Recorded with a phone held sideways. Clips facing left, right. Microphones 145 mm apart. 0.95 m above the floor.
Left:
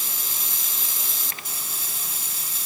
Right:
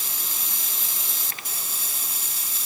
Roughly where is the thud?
No thud in this recording.